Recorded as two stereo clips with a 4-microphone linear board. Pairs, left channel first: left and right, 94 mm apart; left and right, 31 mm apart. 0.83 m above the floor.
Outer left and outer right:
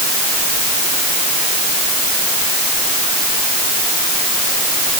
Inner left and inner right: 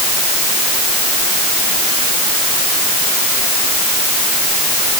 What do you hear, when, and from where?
Only background noise.